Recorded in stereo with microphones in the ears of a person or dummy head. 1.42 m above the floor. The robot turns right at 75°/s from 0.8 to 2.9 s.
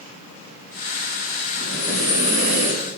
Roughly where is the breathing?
Behind.